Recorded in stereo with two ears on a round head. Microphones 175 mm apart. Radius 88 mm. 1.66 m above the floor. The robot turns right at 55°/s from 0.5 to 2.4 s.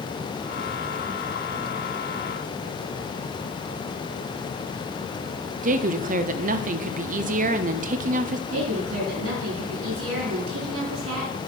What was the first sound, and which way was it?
A woman speaking, 45° right (ahead or behind).